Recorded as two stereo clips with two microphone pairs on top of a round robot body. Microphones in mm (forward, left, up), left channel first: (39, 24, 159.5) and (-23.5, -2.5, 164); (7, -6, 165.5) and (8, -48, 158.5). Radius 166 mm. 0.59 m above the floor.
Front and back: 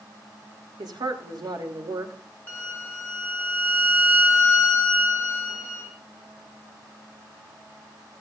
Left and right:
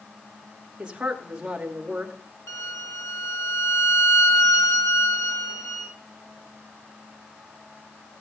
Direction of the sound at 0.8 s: 155° right.